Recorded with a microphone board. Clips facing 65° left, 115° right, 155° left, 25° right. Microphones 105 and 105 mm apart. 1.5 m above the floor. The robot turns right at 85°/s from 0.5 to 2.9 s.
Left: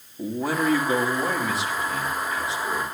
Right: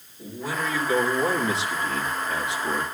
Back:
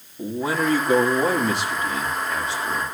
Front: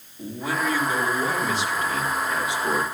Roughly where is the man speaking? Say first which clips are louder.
Left 5 dB, back 4 dB; left.